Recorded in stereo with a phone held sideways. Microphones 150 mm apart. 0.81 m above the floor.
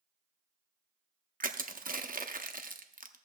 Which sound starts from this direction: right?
Crushing, at 1.4 s.